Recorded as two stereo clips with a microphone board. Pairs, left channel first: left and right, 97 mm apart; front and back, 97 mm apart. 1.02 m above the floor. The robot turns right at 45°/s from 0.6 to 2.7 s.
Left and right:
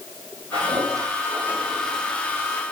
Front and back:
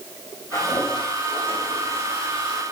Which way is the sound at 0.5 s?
55° right.